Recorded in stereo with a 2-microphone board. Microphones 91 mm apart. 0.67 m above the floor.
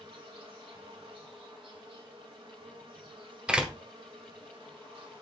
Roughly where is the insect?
Right.